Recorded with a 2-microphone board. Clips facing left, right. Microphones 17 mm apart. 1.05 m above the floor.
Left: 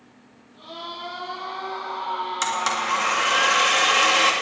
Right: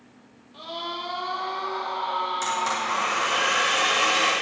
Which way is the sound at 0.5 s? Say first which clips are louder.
Right 3 dB; 55° right (ahead or behind).